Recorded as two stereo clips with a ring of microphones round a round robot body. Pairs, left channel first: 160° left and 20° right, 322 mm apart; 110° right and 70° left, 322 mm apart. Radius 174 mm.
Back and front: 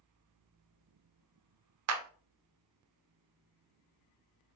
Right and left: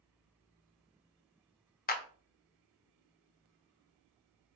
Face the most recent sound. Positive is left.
turn(degrees=-55)